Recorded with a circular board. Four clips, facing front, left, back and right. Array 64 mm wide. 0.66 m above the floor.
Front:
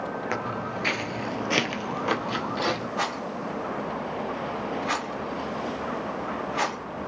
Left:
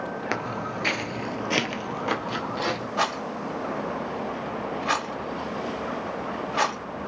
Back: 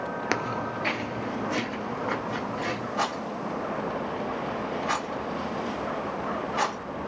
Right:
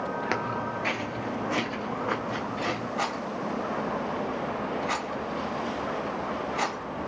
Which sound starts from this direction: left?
A rattle, at 3.0 s.